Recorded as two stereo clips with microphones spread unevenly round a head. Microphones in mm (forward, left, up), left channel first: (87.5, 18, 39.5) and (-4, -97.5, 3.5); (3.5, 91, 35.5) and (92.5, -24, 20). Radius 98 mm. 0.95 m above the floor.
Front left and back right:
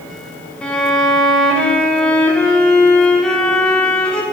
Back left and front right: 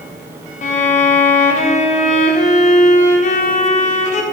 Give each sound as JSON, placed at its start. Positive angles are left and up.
{"t": 0.6, "sound": "a violin", "azimuth_deg": 150, "distance_m": 0.7}